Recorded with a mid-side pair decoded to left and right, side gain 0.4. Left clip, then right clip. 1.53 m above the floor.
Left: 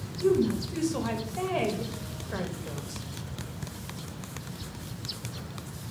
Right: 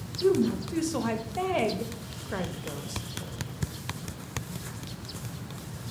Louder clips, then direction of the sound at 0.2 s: Even; 25° right.